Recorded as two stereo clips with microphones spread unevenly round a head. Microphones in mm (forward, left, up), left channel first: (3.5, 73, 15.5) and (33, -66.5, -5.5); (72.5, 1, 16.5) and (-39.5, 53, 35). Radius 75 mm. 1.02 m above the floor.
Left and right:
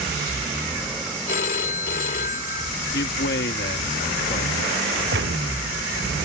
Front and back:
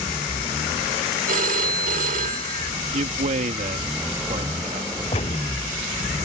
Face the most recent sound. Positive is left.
turn(degrees=-75)